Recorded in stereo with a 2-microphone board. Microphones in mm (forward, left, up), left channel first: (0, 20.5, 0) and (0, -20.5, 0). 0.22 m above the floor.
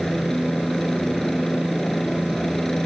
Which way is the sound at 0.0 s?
15° left (ahead or behind).